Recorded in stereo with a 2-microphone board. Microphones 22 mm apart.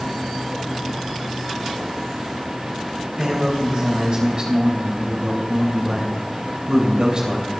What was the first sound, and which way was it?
A man speaking, 40° right (ahead or behind).